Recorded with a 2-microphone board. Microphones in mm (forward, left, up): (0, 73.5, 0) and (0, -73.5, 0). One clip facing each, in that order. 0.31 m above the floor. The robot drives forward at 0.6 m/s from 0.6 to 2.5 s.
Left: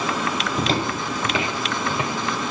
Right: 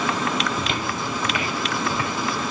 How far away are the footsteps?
About 0.5 m.